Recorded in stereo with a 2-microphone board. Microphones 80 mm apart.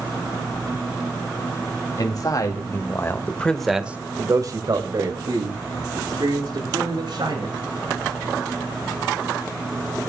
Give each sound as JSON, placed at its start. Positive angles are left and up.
{"t": 2.0, "sound": "a man speaking", "side_deg": 55, "distance_m": 3.0}